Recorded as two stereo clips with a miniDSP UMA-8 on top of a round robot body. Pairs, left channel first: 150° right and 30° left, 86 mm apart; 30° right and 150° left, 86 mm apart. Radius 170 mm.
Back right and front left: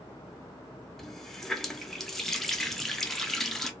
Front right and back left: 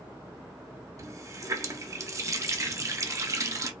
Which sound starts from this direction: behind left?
A running tap, at 1.0 s.